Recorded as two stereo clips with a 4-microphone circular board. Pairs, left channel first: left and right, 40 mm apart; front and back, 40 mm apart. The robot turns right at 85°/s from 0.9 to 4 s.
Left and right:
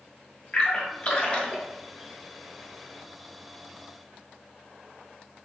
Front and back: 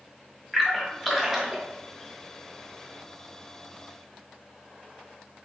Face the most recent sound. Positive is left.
turn(degrees=-35)